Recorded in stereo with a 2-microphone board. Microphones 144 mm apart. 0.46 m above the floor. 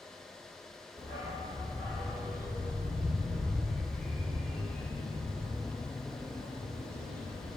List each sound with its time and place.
1.0 s a dog barking: 25° right (ahead or behind), 3.5 m; by 7.6 s 45° left (ahead or behind), 2.5 m